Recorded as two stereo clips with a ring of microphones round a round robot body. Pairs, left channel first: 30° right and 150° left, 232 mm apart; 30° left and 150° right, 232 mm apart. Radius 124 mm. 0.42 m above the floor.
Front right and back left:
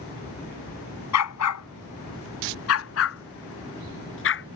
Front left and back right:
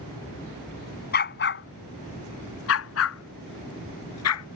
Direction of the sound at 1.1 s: 20° right.